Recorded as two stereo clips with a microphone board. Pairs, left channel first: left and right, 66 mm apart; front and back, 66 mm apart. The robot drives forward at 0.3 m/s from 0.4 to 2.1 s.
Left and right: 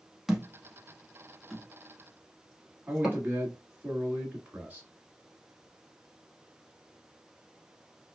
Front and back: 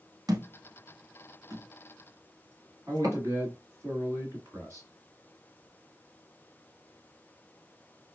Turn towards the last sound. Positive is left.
turn(degrees=-150)